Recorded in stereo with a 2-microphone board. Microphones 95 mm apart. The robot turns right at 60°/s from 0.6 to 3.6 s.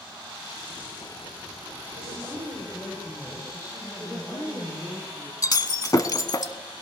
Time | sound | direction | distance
2.0 | a woman speaking | 55° right | 6.5 m
4.0 | a woman speaking | centre (ahead or behind) | 7 m
5.4 | breaking glass | 40° left (ahead or behind) | 0.8 m